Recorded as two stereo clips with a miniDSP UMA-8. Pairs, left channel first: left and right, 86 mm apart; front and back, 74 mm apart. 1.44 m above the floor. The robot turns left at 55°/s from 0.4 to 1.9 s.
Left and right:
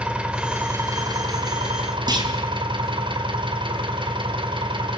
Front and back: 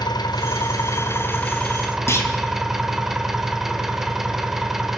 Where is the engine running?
10° right, 2.5 m; by 5.0 s 95° right, 2.5 m.